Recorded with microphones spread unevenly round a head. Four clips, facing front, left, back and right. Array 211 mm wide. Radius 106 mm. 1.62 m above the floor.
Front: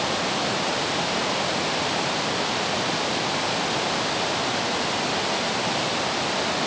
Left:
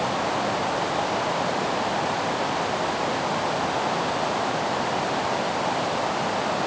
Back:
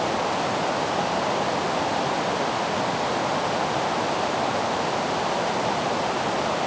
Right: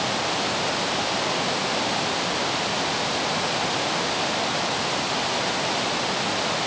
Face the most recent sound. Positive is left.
No sound to turn to.